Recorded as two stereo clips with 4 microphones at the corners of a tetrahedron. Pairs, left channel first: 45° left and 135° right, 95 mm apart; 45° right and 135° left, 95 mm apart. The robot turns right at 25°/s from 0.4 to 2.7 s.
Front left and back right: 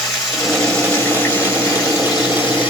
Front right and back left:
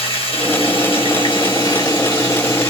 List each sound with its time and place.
0.0 s running water: 40° right, 2.5 m; by 2.7 s 15° left, 2.5 m